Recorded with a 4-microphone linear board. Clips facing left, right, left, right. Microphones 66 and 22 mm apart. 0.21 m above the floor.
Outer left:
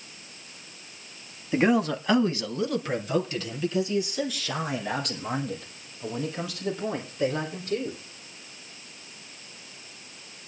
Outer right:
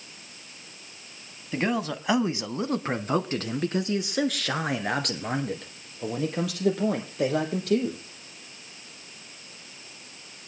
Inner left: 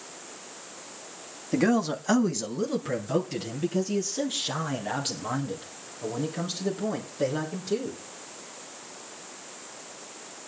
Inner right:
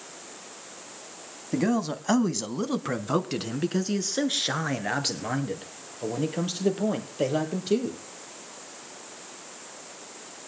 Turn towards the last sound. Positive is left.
turn(degrees=-80)